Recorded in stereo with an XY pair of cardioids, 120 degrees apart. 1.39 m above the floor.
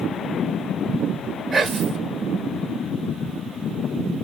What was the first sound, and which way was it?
Whispering, 15° right.